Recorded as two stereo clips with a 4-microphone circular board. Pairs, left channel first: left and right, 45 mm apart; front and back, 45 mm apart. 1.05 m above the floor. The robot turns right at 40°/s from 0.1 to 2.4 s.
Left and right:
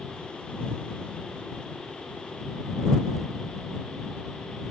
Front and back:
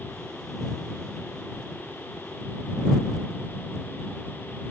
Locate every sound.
Only background noise.